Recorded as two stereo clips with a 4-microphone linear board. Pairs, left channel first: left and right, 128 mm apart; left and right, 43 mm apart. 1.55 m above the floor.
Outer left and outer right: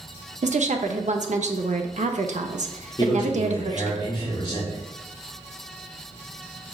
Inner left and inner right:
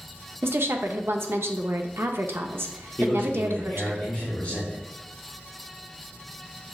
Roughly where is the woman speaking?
Right.